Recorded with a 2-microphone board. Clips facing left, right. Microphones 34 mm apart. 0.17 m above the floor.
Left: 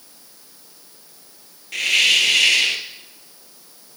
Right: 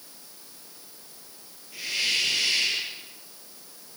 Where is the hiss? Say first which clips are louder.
Left 11 dB; 75° left (ahead or behind), 2 m.